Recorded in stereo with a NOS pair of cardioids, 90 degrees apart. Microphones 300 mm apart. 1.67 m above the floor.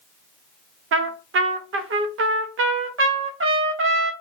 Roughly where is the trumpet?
Ahead right.